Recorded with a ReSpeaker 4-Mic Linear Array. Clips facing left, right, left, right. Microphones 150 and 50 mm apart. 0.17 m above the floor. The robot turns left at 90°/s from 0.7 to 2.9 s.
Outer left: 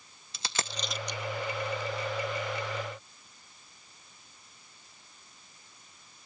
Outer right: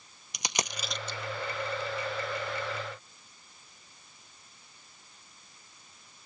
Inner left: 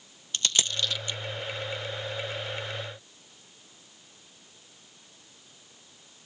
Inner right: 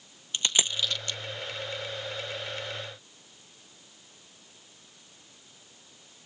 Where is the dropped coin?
15° right (ahead or behind), 0.5 m; by 1.2 s 25° left (ahead or behind), 0.5 m.